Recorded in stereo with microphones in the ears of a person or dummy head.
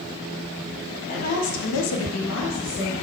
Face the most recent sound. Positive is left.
turn(degrees=40)  # may be behind; listen again after turning